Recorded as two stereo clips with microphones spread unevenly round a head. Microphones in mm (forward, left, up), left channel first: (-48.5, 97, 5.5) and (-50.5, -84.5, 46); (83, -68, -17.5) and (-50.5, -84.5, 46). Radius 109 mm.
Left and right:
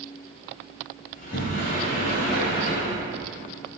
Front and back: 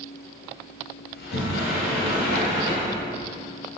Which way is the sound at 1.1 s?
30° left.